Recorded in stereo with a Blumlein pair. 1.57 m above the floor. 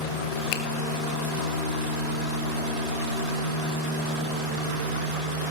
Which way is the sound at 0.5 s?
45° left.